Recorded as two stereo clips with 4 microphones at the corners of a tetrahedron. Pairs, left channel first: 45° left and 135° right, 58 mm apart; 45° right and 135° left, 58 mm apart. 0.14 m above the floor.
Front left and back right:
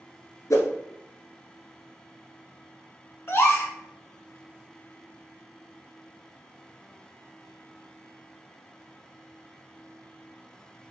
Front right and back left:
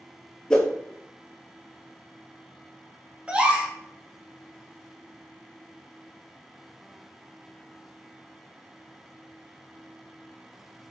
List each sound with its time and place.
0.5 s a whoosh: 30° left, 0.9 m
3.3 s a gasp: 75° left, 0.8 m